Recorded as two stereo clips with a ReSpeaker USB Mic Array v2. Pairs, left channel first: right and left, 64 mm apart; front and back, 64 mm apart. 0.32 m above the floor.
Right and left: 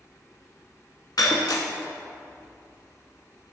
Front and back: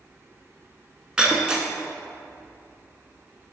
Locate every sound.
1.2 s breaking glass: 105° right, 0.7 m